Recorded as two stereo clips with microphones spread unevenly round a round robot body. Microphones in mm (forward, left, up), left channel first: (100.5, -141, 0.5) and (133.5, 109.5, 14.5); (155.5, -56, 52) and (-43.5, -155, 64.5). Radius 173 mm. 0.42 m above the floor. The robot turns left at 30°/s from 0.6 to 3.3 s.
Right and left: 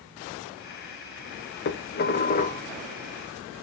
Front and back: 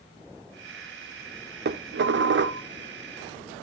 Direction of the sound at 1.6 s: 125° right.